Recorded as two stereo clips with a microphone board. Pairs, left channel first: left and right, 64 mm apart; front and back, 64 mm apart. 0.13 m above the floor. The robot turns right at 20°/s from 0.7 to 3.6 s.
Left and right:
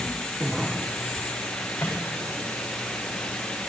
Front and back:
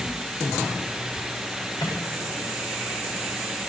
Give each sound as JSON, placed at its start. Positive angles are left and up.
{"t": 1.8, "sound": "a microwave", "azimuth_deg": 15, "distance_m": 9.5}